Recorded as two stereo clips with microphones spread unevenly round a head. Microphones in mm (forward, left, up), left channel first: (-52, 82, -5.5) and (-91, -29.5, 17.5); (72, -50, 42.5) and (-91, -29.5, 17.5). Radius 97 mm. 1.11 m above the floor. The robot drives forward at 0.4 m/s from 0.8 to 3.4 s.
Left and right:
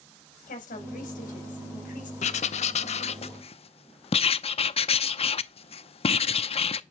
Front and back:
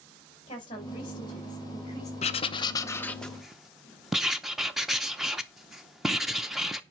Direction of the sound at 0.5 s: 60° left.